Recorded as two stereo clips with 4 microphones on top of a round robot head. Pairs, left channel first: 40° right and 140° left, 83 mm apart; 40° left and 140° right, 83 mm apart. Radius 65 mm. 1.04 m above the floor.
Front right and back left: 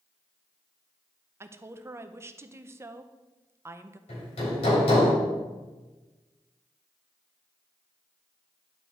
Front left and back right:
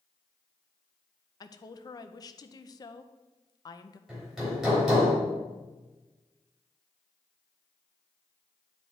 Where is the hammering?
55° right, 3.5 m.